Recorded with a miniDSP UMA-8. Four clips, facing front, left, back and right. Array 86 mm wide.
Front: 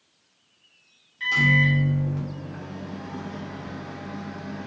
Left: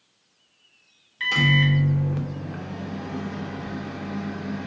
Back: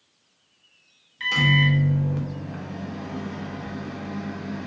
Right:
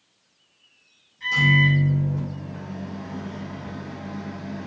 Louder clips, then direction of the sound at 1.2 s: Right 1 dB, even; 115° left.